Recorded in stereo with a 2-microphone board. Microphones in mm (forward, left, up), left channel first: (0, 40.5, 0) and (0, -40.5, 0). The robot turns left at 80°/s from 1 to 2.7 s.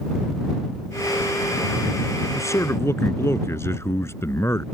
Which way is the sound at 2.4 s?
40° left (ahead or behind).